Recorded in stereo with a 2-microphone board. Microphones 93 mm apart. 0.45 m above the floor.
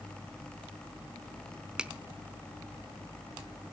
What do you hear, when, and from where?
1.8 s a finger snap: 10° right (ahead or behind), 0.8 m